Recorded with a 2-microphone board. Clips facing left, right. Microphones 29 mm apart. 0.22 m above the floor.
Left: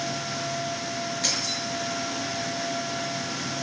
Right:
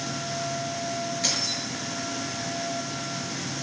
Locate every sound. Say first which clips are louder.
1.2 s keys jangling: left 1 dB; 5° right (ahead or behind), 6.5 m